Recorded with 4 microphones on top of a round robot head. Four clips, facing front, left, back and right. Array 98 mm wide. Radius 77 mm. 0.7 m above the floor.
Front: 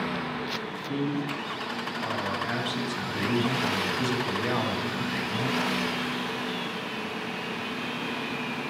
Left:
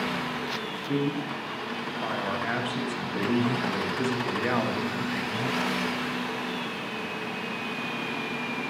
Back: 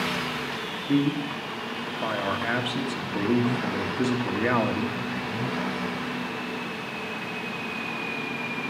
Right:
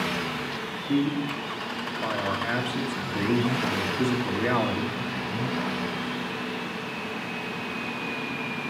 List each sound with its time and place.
0.9 s a man speaking: 175° left, 1.2 m